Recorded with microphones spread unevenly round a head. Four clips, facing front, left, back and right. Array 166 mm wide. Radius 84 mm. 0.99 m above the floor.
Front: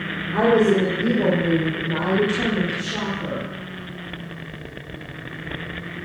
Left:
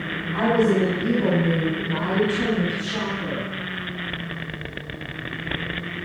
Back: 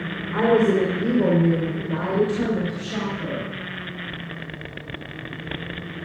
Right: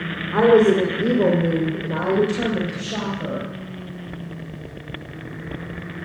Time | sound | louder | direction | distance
0.3 | a woman speaking | right 6 dB, front 1 dB | 90° right | 3 m